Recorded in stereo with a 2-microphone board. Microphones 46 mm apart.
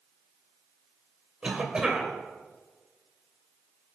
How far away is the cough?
About 1.9 m.